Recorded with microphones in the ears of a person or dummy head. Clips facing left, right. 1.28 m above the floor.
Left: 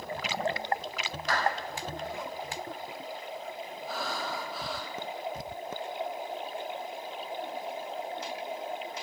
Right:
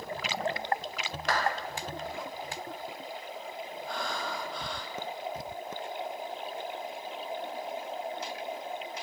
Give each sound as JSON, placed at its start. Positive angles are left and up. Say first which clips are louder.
{"t": 1.3, "sound": "a clap", "louder": "right 1 dB", "side_deg": -55, "distance_m": 5.0}
{"t": 3.9, "sound": "breathing", "louder": "left 1 dB", "side_deg": 0, "distance_m": 1.7}